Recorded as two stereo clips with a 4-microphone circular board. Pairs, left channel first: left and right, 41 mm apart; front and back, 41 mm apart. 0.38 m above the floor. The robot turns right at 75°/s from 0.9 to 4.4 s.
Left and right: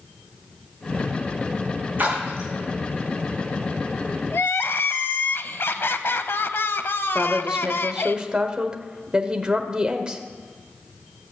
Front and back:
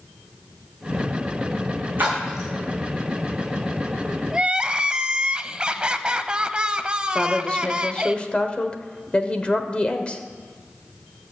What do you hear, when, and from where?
2.0 s a splash: 135° right, 6.5 m; by 2.5 s 100° right, 6.5 m
4.3 s crying: 110° left, 0.6 m; by 8.2 s 115° left, 0.6 m
7.2 s a woman speaking: 35° right, 1.2 m